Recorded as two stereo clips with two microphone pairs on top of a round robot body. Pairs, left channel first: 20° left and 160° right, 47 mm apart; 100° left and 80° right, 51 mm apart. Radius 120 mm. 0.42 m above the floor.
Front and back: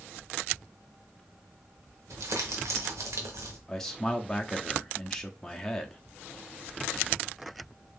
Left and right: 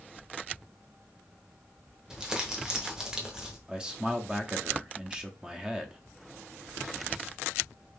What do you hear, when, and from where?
2.1 s crumpling: 160° right, 1.0 m
3.7 s a man speaking: straight ahead, 0.8 m